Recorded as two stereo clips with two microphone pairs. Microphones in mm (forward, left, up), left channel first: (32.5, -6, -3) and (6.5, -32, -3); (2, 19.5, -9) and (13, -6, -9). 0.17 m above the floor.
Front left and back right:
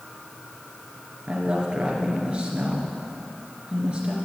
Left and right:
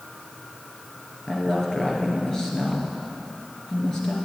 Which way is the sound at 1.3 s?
175° left.